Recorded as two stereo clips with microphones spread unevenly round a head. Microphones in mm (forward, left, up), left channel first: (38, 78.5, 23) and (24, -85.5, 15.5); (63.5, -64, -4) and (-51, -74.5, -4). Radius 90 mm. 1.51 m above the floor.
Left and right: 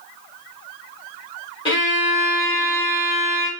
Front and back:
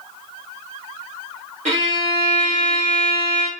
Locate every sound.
1.6 s a violin: 150° left, 1.4 m